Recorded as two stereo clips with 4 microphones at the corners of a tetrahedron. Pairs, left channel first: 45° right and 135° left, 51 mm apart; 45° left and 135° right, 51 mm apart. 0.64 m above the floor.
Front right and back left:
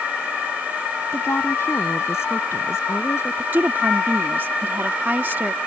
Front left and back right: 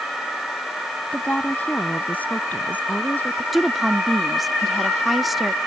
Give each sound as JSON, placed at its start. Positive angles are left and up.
{"t": 1.1, "sound": "a woman speaking", "azimuth_deg": -15}
{"t": 3.5, "sound": "a woman speaking", "azimuth_deg": 135}